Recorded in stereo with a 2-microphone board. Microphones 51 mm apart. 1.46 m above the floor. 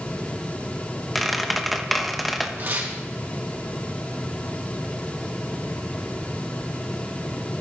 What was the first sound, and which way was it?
A squeak, 5° right (ahead or behind).